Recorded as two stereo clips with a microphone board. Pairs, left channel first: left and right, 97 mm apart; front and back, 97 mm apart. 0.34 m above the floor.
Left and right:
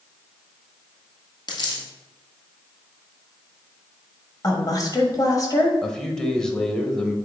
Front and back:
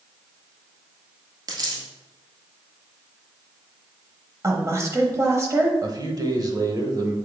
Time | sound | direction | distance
1.5 | a dropped coin | 130° left | 1.8 m
4.4 | a woman speaking | 130° left | 1.4 m
5.8 | a man speaking | 170° left | 1.0 m